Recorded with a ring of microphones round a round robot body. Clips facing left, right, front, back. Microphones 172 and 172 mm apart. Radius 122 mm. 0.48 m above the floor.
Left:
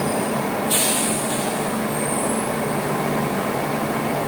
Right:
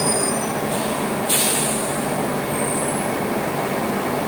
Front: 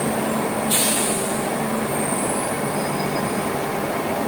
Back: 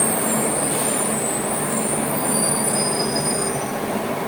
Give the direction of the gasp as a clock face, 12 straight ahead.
I don't hear a gasp.